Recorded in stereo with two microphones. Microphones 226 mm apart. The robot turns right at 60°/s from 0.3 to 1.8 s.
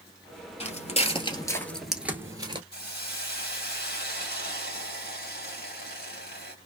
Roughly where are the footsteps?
Left.